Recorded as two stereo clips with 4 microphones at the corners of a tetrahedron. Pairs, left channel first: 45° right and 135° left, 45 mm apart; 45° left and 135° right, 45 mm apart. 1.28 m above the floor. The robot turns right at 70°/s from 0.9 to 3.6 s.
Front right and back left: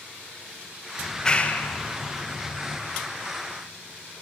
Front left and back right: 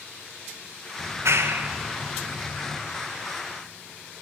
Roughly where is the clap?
Behind right.